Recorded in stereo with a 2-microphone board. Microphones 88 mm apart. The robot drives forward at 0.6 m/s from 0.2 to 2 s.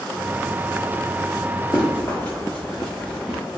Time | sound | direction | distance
1.7 | running footsteps | 50° left (ahead or behind) | 1.7 m